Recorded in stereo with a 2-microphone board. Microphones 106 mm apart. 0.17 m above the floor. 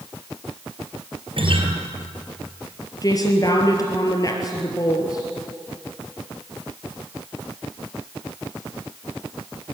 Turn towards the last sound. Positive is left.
turn(degrees=35)  # may be behind; listen again after turning